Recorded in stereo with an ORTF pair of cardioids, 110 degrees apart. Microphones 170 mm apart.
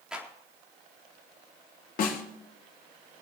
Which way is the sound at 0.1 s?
5° right.